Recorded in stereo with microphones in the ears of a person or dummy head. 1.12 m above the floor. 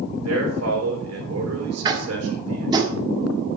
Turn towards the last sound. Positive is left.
turn(degrees=-20)  # may be behind; listen again after turning